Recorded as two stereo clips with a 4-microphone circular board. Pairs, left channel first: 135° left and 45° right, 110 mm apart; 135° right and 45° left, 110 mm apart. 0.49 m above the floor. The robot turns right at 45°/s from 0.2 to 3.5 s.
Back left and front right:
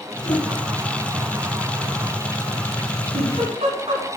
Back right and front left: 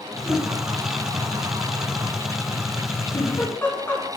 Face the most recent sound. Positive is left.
turn(degrees=-65)